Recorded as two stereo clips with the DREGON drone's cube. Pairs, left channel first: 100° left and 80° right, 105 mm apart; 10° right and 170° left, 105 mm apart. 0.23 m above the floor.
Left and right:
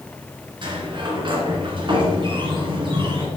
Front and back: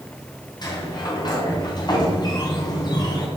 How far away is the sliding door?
About 2.5 m.